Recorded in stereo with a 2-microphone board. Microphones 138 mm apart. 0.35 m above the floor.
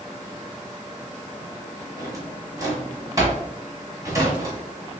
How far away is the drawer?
About 1.4 m.